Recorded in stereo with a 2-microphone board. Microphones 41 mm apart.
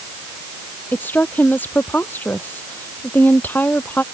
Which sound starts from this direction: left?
A woman speaking, at 0.9 s.